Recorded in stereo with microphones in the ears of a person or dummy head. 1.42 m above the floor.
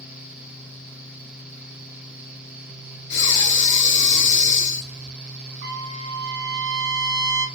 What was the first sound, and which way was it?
Breathing, 60° left (ahead or behind).